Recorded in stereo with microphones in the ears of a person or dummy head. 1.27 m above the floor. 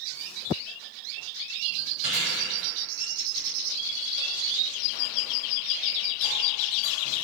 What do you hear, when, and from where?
2.0 s chewing: 35° left (ahead or behind), 1.7 m